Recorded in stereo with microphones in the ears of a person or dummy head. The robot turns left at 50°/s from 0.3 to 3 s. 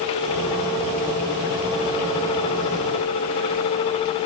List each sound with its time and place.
Only background noise.